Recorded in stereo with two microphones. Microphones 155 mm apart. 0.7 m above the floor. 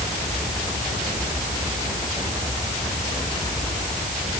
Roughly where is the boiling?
No boiling in this recording.